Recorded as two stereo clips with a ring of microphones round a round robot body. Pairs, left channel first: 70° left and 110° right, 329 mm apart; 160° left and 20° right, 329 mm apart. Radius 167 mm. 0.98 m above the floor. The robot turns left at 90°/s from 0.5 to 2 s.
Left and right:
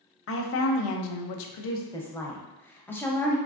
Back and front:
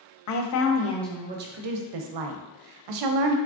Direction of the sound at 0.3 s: 120° left.